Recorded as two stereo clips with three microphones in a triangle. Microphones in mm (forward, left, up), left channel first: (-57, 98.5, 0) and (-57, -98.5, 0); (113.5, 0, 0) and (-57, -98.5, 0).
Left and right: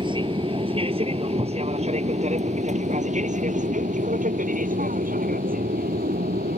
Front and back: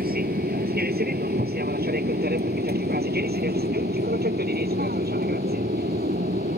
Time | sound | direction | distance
0.0 | an aircraft | 145° right | ?